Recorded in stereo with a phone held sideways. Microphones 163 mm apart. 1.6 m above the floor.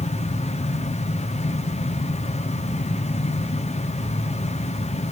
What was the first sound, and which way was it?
A fan, 45° left (ahead or behind).